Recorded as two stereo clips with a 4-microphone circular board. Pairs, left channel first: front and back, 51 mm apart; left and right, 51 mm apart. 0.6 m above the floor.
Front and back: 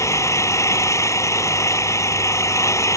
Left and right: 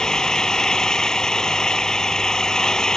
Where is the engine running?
10° left.